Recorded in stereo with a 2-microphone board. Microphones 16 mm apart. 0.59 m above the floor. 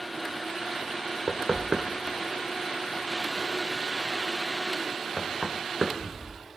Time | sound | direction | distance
1.3 | knocking | 60° right (ahead or behind) | 1.3 m